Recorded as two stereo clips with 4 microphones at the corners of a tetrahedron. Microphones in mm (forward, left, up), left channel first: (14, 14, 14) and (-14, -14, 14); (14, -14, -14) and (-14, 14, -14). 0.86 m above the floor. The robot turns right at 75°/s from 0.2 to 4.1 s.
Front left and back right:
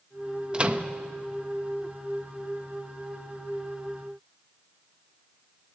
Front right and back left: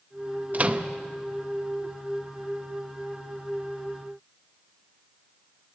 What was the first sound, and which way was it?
A microwave, 165° left.